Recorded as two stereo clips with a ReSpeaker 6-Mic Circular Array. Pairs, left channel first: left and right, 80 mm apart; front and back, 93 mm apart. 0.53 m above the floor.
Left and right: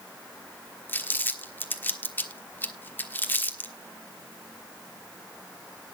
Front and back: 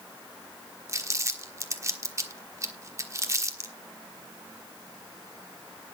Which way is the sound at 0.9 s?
140° left.